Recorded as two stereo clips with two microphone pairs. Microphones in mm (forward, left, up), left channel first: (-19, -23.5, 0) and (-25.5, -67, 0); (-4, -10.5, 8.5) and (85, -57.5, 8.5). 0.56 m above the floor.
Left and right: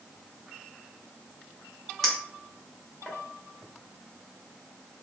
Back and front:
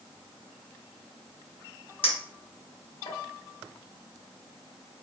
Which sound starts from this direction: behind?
A clink, at 2.0 s.